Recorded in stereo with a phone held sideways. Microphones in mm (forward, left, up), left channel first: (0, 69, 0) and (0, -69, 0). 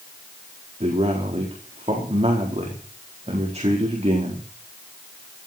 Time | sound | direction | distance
0.8 | a man speaking | 50° right (ahead or behind) | 4.5 m